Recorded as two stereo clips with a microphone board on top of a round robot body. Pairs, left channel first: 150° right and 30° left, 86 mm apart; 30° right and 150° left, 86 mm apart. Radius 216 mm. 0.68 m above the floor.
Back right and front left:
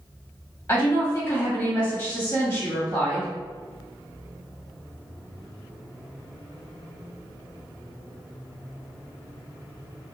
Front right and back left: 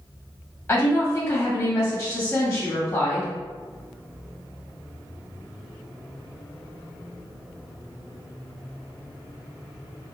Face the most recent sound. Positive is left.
turn(degrees=-100)